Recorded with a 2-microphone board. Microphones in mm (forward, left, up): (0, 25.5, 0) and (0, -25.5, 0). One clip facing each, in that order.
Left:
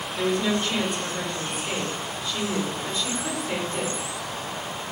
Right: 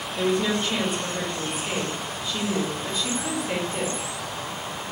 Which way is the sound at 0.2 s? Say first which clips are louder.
Right 1 dB; 15° right (ahead or behind).